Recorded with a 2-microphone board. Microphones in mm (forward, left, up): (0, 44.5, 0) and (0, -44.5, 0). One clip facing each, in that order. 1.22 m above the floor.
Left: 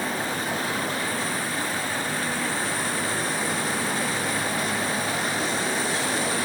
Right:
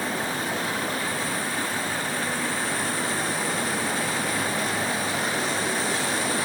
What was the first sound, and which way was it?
Only background noise.